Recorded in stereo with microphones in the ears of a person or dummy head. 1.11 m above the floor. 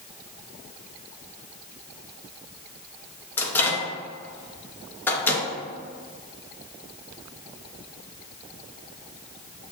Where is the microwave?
10° left (ahead or behind), 0.8 m.